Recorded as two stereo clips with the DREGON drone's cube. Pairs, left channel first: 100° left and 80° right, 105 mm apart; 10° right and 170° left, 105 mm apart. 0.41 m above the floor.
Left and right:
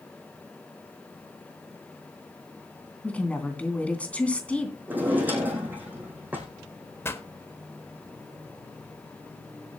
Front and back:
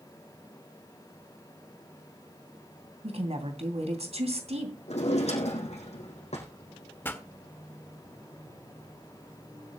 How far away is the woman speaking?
About 2.5 m.